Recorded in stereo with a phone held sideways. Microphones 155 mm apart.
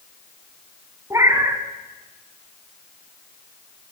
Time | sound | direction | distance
1.1 | a cat meowing | 20° right (ahead or behind) | 0.9 m